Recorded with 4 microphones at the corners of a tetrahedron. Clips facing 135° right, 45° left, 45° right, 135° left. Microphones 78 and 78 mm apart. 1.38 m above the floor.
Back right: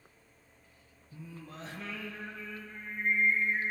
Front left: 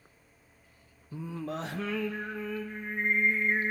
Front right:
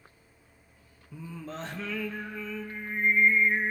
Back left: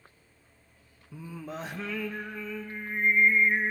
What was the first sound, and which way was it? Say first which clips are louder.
Singing: front left 11 dB, back left 1 dB; 55° left.